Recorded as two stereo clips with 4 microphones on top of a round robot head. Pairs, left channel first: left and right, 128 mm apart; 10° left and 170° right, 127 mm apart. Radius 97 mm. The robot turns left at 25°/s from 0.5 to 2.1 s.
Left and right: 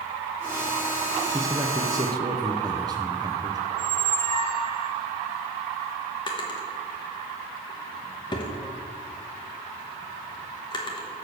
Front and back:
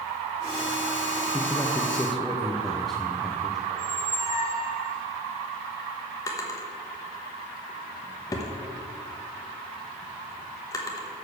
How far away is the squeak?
About 0.6 m.